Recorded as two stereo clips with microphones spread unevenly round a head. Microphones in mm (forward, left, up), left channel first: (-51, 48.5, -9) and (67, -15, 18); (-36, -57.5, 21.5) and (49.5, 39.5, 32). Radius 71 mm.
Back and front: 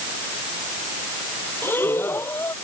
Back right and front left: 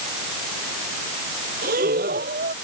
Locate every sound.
1.6 s breathing: 75° left